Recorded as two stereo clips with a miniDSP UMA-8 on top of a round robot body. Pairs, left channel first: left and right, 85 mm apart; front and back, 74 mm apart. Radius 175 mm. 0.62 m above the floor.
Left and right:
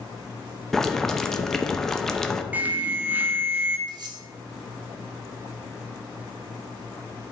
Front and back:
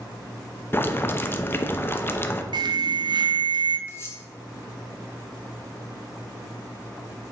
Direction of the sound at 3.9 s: 55° right.